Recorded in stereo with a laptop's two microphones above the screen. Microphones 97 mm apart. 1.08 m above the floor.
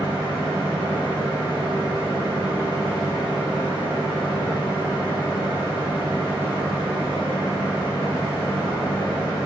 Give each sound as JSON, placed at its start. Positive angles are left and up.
{"t": 0.0, "sound": "a fan", "side_deg": 65, "distance_m": 1.5}